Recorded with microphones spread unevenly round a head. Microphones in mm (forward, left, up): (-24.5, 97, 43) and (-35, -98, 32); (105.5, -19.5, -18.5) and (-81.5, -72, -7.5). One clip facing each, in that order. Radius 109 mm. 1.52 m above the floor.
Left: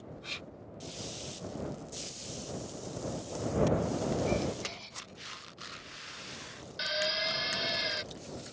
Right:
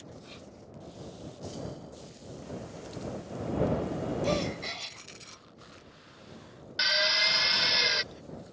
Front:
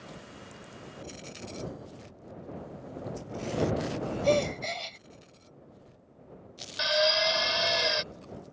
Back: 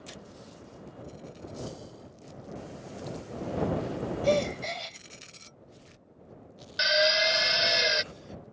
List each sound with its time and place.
4.2 s a gasp: 75° right
6.8 s a drill: 105° right